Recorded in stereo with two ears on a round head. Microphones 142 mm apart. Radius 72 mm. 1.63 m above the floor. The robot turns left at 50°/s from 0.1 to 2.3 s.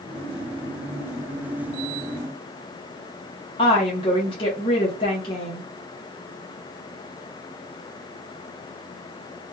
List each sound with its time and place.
3.6 s a woman speaking: 30° left (ahead or behind), 1.5 m